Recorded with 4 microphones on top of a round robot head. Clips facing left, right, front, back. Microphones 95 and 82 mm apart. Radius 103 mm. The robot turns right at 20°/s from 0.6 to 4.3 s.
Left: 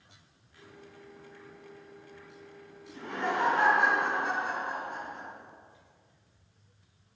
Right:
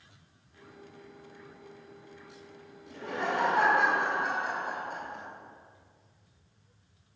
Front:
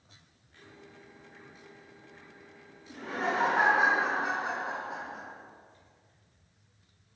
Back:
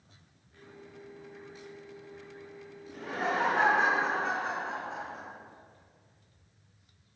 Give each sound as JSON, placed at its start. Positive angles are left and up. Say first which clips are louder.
{"t": 2.9, "sound": "laughter", "louder": "even, even", "azimuth_deg": -105, "distance_m": 2.5}